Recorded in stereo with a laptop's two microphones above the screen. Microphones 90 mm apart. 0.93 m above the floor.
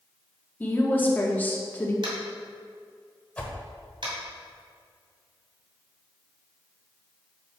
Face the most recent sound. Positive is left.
turn(degrees=15)  # may be behind; listen again after turning